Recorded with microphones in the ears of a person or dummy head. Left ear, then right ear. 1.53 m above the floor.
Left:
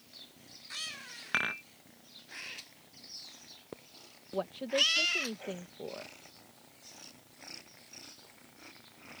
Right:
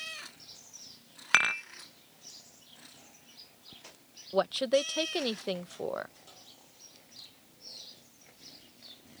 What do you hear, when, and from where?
1.3 s dishes clattering: 30° right (ahead or behind)
4.3 s a woman speaking: 60° right (ahead or behind)